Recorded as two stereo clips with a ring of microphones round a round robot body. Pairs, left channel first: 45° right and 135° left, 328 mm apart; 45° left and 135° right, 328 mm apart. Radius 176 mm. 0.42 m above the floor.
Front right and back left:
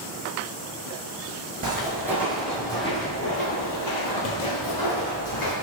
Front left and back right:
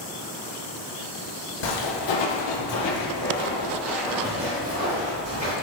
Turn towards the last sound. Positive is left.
turn(degrees=-80)